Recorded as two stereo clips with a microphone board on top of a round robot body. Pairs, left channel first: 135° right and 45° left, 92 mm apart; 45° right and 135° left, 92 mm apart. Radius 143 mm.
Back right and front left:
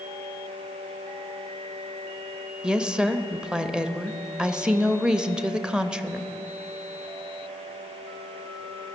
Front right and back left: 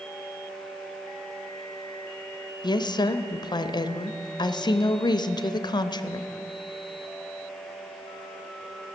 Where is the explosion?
No explosion in this recording.